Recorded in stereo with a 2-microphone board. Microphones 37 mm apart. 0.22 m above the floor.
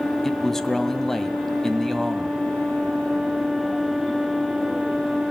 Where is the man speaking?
10° left (ahead or behind), 1.5 m.